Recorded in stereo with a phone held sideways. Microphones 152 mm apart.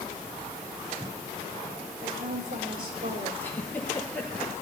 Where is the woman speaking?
85° right, 5 m; by 3.3 s 80° right, 4 m.